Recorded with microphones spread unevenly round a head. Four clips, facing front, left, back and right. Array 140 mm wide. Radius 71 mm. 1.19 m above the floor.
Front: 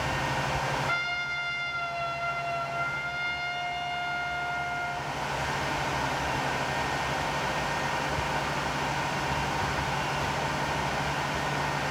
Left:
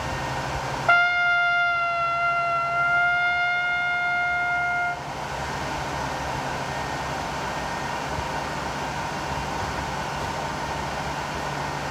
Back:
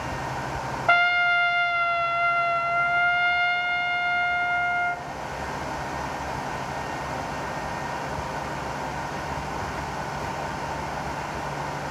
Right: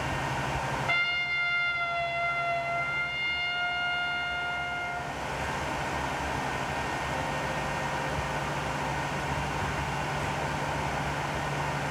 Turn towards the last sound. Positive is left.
turn(degrees=130)